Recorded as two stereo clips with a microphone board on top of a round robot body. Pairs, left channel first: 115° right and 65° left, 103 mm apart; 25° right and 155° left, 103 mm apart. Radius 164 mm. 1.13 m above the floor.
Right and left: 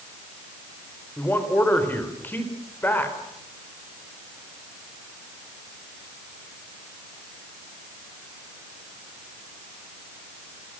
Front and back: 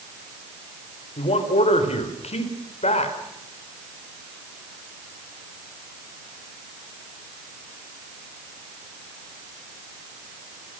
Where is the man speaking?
40° right, 4.5 m.